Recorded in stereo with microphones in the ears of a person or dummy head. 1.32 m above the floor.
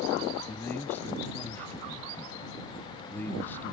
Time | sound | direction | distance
0.5 | a man speaking | 10° left (ahead or behind) | ?